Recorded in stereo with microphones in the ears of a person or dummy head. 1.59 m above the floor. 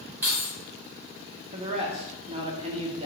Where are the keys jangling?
15° right (ahead or behind), 2 m.